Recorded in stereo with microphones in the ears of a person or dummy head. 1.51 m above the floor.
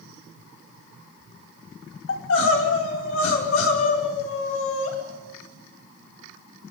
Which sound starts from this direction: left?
Crying, at 2.1 s.